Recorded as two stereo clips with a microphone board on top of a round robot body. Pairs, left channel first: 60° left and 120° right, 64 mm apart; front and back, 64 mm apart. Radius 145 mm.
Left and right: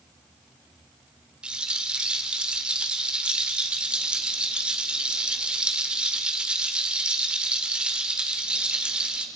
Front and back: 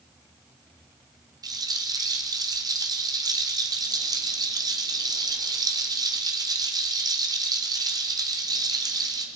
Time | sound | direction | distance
1.4 | a rattle | 165° left | 2 m